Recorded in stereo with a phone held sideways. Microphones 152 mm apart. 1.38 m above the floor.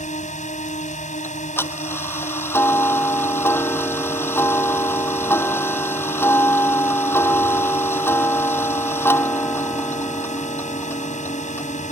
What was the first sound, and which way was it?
A drone, 50° left (ahead or behind).